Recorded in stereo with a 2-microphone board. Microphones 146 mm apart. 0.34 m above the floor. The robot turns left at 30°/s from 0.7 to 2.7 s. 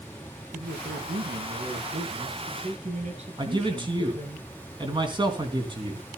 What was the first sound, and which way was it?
A man speaking, 70° right.